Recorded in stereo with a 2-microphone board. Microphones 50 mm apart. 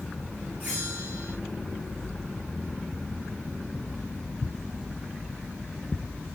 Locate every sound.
0.6 s a bell: 35° right (ahead or behind), 5.5 m